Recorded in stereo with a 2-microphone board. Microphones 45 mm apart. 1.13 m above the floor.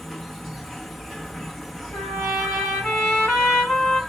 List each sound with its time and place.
0.0 s an insect: 5° left (ahead or behind), 0.8 m
1.9 s a trumpet: 20° left (ahead or behind), 2.5 m